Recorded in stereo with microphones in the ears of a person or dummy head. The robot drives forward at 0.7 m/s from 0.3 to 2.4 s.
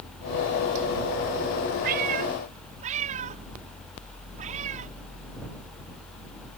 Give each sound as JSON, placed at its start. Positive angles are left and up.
{"t": 1.8, "sound": "a cat meowing", "side_deg": -40}